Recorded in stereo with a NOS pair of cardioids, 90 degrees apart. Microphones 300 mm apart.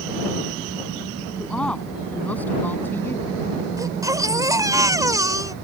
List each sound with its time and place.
1.4 s a woman speaking: 5° left; by 3.4 s 10° left
3.8 s a baby crying: 10° right